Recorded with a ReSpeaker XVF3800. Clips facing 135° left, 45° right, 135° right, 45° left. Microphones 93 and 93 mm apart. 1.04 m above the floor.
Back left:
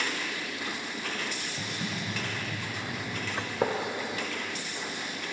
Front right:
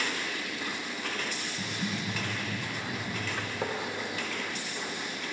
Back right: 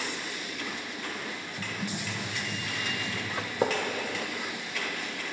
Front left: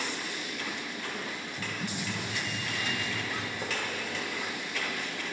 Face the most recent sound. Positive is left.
turn(degrees=-165)